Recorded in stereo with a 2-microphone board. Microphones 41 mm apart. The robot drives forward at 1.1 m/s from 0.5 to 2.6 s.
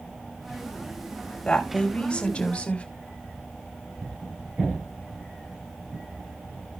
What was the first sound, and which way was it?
A woman speaking, 20° left (ahead or behind).